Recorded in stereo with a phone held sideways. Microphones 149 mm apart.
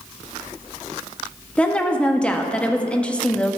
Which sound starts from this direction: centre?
A woman speaking, at 1.6 s.